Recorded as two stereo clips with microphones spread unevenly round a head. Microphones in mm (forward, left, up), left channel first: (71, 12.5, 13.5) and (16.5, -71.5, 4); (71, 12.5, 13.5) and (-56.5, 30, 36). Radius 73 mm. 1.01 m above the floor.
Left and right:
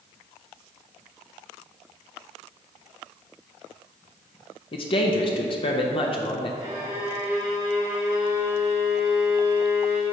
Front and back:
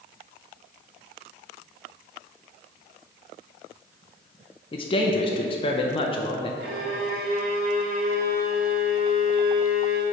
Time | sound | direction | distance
4.7 | a man speaking | 25° left | 0.7 m
6.6 | a violin | 175° left | 1.7 m